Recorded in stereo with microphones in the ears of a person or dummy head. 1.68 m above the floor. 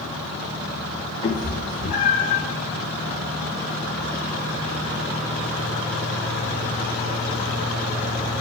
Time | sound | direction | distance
1.2 | a cat meowing | 40° left (ahead or behind) | 2.5 m